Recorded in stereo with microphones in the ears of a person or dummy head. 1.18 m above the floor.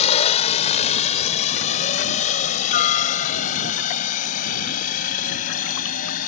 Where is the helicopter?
40° left (ahead or behind); by 6.3 s 50° left (ahead or behind).